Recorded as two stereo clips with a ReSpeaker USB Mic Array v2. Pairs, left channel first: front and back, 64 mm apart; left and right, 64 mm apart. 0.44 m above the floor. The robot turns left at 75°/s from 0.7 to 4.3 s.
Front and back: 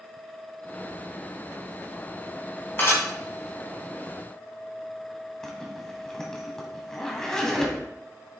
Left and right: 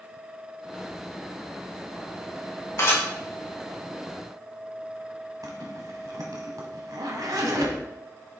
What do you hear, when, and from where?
2.8 s dishes clattering: 55° left, 3 m; by 3.0 s 35° left, 3 m
5.4 s a zipper: 80° right, 1.5 m